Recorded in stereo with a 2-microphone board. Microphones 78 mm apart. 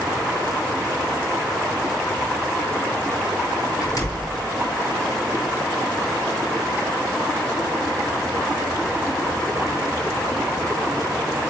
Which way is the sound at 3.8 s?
45° left (ahead or behind).